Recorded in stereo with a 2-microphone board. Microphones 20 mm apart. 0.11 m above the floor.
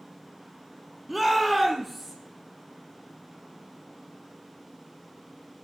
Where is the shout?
10° right (ahead or behind), 2.5 m; by 2.1 s 5° right (ahead or behind), 3.5 m.